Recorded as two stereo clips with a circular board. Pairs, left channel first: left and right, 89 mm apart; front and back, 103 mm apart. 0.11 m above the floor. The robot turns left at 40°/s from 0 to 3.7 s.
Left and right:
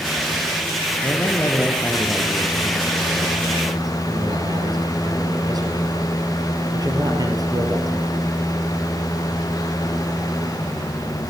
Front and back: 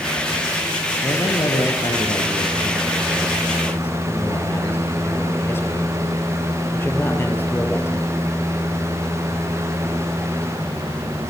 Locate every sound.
1.0 s a man speaking: 45° left, 2.5 m; by 8.2 s 65° right, 2.5 m